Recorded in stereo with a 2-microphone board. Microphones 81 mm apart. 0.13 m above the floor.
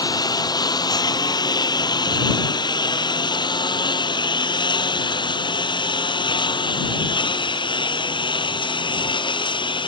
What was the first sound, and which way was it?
A lawn mower, 55° left (ahead or behind).